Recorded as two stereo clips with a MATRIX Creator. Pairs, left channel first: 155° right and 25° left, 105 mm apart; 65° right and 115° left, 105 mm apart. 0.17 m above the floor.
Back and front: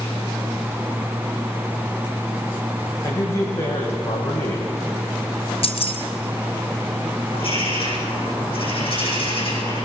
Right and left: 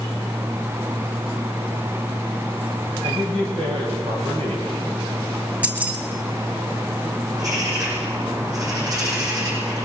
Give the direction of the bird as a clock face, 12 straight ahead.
6 o'clock.